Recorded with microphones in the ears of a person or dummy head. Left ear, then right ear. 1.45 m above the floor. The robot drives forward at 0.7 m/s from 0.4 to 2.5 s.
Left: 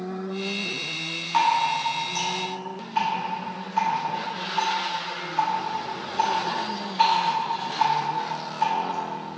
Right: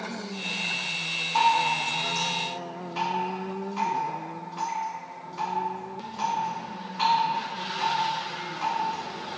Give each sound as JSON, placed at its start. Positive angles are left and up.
{"t": 1.3, "sound": "dripping", "side_deg": 40, "distance_m": 1.3}